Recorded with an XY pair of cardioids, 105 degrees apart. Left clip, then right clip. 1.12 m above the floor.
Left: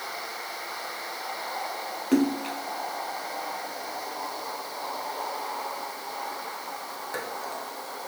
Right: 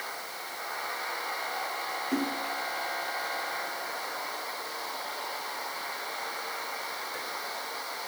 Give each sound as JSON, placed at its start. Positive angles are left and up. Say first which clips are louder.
{"t": 2.1, "sound": "a splash", "louder": "left 9 dB", "azimuth_deg": 55}